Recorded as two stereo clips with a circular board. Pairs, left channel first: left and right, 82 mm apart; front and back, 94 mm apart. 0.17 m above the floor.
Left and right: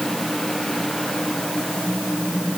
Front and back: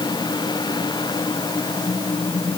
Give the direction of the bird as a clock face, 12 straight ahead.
No bird in this recording.